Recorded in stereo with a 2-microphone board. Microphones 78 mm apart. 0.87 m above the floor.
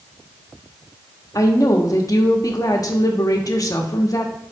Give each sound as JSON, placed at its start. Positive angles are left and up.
{"t": 1.4, "sound": "a woman speaking", "side_deg": 45, "distance_m": 1.1}